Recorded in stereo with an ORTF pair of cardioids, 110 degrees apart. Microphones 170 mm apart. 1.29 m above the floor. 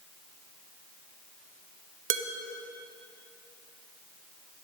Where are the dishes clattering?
55° right, 0.9 m.